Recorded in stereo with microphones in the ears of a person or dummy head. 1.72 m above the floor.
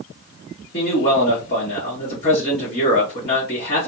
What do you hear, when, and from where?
0.7 s a man speaking: 25° left (ahead or behind), 1.1 m